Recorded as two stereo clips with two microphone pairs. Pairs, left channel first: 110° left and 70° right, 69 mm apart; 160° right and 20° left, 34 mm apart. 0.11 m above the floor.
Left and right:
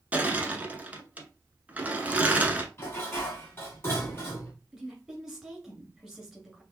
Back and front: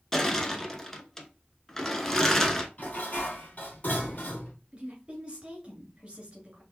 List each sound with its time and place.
0.1 s crushing: 105° right, 0.8 m
2.8 s dishes clattering: 160° left, 1.9 m
4.7 s a woman speaking: 5° left, 1.4 m